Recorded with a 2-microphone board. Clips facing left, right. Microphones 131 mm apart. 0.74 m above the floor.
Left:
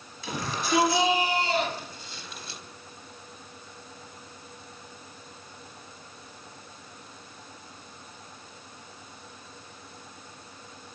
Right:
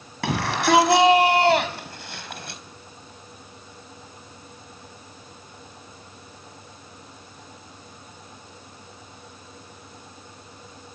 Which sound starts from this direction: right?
A shout, at 0.2 s.